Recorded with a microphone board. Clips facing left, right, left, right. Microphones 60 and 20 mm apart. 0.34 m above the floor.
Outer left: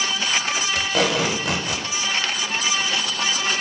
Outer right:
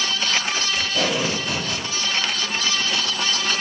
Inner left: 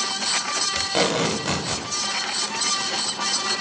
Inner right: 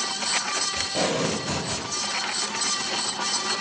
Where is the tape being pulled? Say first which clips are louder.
Outer left 3 dB, inner left 5 dB; 65° left (ahead or behind), 0.7 m.